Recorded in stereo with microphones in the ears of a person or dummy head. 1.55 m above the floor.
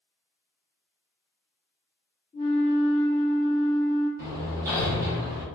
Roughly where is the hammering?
Centre.